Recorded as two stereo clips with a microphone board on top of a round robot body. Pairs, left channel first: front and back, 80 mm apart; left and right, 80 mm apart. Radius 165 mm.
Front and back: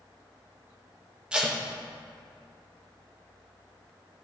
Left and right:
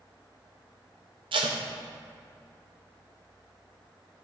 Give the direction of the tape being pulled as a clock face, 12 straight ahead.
3 o'clock.